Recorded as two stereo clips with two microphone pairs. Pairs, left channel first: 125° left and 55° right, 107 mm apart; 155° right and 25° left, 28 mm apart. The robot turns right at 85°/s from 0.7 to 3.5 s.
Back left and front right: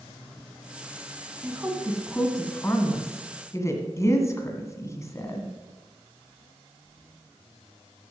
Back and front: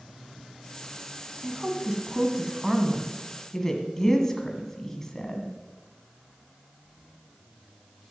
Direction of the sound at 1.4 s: 30° right.